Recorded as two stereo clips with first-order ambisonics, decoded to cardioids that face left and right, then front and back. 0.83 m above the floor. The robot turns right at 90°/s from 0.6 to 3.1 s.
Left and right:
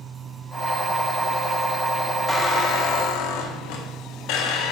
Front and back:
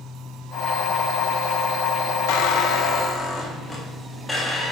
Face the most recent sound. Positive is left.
turn(degrees=80)